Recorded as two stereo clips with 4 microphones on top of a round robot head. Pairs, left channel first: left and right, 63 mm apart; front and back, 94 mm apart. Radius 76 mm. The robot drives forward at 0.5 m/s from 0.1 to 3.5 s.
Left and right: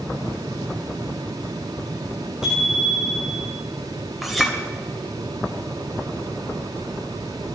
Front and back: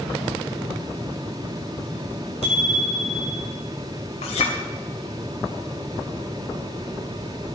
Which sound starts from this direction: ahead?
A clink, at 4.2 s.